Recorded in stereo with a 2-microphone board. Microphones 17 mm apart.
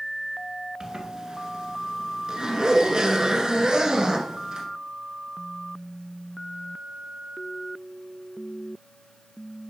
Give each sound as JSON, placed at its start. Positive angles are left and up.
{"t": 0.8, "sound": "a zipper", "side_deg": -45, "distance_m": 1.7}